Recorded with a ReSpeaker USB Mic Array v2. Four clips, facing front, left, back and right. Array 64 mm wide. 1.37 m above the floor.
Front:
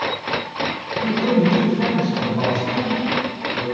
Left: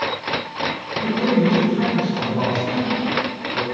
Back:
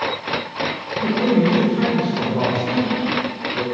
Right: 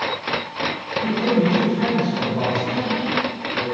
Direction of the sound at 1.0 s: 170° left.